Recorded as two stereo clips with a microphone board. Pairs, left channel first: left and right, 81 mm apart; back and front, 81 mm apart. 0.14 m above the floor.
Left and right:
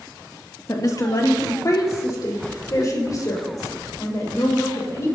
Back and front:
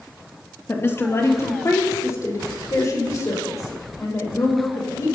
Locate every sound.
0.7 s a woman speaking: 125° left, 3 m; by 5.1 s 135° left, 9 m